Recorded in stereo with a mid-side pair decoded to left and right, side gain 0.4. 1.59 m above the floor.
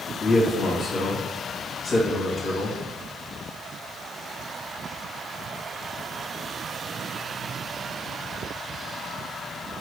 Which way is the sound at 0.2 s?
45° left.